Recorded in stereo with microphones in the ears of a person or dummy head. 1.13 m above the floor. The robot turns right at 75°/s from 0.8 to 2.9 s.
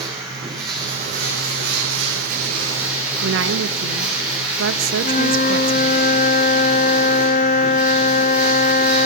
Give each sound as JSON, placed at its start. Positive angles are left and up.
{"t": 0.0, "sound": "running water", "azimuth_deg": -155, "distance_m": 8.5}
{"t": 3.2, "sound": "a woman speaking", "side_deg": -70, "distance_m": 1.2}
{"t": 5.0, "sound": "a flute", "side_deg": 35, "distance_m": 0.7}